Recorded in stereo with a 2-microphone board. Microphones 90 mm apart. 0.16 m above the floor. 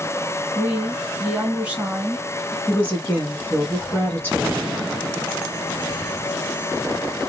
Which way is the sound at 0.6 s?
15° right (ahead or behind).